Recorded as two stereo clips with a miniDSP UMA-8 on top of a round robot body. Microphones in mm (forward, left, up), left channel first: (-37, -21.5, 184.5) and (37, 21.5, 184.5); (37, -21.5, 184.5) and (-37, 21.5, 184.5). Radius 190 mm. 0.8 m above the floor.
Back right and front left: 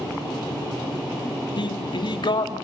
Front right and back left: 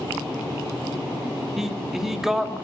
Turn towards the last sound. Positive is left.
turn(degrees=-125)